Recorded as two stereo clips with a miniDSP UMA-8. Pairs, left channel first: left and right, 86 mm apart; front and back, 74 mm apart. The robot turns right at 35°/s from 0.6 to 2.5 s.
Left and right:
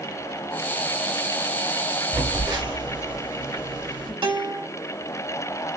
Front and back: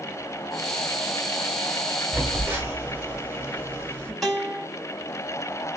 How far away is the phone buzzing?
About 1.1 m.